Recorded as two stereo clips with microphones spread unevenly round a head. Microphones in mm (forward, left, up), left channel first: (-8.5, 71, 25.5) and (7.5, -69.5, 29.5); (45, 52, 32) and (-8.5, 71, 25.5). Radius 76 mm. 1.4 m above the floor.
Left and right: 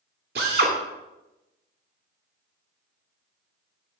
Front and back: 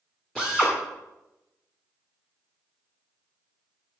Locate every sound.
0.3 s a drill: 105° right, 2 m